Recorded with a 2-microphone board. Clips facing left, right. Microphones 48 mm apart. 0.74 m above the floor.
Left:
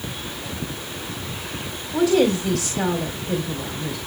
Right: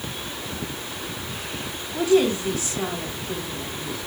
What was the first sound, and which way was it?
A woman speaking, 80° left.